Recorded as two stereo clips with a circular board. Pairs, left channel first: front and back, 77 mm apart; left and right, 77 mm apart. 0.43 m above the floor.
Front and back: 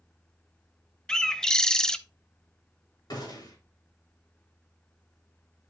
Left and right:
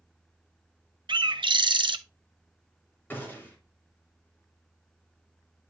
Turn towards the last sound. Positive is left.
turn(degrees=25)